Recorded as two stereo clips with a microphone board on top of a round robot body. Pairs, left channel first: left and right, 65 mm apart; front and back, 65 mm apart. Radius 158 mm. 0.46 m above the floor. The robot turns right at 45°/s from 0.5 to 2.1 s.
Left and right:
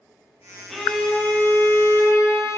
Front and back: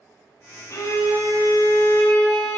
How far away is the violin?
About 1.2 m.